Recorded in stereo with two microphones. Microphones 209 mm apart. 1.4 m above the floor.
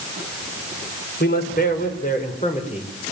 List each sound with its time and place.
1.2 s a man speaking: 50° left (ahead or behind), 4.5 m; by 2.9 s 30° left (ahead or behind), 4.5 m